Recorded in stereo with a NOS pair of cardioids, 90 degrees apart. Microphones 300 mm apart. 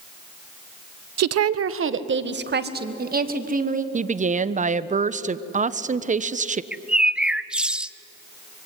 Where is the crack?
I don't hear a crack.